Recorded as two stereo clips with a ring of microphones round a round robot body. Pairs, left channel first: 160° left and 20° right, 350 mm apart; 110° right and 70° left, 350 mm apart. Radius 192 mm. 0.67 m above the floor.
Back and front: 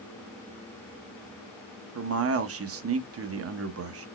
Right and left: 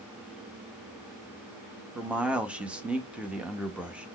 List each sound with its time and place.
1.9 s a man speaking: 15° right, 0.7 m